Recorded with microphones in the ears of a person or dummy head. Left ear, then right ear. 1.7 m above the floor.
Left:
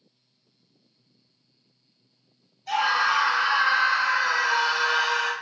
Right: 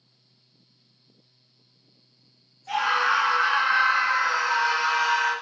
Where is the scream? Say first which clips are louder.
Even; 55° left (ahead or behind), 1.3 m.